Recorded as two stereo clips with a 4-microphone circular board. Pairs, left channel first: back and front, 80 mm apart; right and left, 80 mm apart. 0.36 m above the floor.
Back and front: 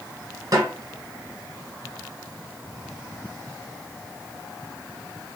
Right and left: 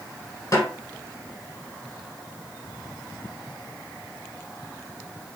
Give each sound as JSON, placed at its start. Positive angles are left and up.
{"t": 0.5, "sound": "a snare drum", "azimuth_deg": -45, "distance_m": 1.5}